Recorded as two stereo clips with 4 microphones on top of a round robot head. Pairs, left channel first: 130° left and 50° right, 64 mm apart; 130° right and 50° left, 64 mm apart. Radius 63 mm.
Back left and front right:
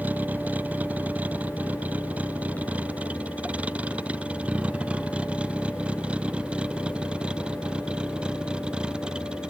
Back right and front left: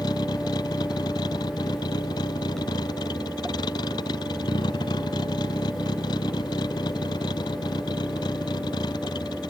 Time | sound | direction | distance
0.0 | a vehicle | 115° right | ?